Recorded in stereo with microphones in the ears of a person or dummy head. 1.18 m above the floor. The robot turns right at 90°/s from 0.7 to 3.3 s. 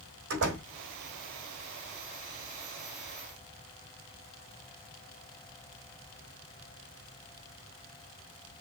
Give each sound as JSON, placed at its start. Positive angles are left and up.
{"t": 0.3, "sound": "a door slam", "side_deg": -60, "distance_m": 3.0}